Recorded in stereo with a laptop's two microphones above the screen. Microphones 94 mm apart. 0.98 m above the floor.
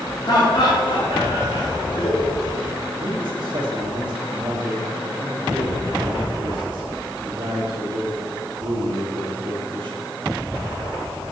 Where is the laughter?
50° left (ahead or behind), 2 m; by 2.7 s 75° left (ahead or behind), 2 m.